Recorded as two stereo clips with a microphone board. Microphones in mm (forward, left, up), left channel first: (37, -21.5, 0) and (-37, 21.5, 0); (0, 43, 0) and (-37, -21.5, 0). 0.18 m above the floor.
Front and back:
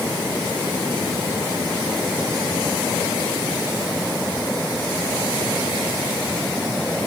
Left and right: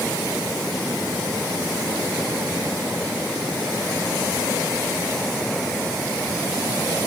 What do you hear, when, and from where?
Only background noise.